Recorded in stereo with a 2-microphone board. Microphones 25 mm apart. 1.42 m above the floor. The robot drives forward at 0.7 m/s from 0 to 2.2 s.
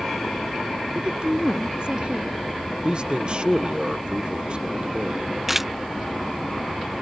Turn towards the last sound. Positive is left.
turn(degrees=-15)  # may be behind; listen again after turning